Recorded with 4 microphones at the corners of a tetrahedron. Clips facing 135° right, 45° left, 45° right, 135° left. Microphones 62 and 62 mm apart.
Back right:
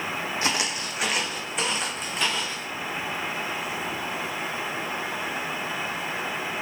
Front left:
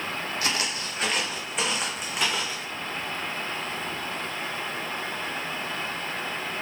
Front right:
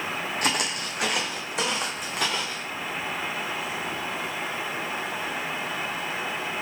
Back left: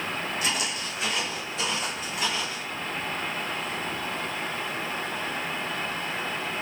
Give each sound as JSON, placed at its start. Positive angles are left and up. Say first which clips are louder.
{"t": 0.4, "sound": "footsteps", "louder": "back right 2 dB, front right 2 dB", "azimuth_deg": -70, "distance_m": 0.9}